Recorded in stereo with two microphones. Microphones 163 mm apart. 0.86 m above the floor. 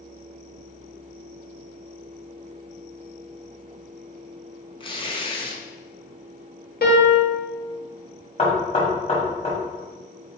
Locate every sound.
4.8 s tearing paper: 30° left (ahead or behind), 0.8 m
6.8 s a piano: 70° left (ahead or behind), 1.2 m
8.4 s knocking: 40° left (ahead or behind), 1.6 m